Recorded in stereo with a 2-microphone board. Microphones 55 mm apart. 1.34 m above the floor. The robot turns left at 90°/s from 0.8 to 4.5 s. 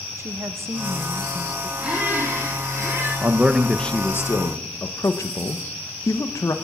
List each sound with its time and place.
0.2 s a woman speaking: 65° right, 1.0 m; by 1.7 s 145° right, 1.0 m
1.8 s a squeak: 15° right, 8 m; by 3.1 s 135° right, 8 m
3.2 s a man speaking: 140° right, 1.1 m; by 6.5 s 105° left, 1.1 m